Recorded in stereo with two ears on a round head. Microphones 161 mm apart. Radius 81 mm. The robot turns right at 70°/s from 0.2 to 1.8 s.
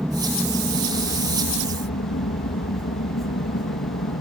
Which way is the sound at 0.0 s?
5° right.